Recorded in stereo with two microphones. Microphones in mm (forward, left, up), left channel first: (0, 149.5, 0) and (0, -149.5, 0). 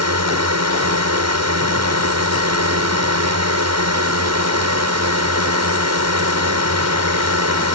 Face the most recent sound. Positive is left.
turn(degrees=-60)  # may be behind; listen again after turning